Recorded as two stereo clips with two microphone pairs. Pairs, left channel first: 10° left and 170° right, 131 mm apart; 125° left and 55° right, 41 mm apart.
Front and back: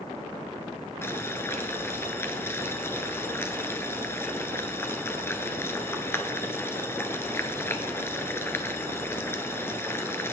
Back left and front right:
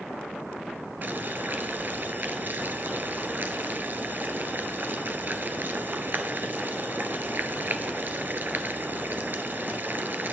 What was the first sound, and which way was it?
Boiling, 60° right.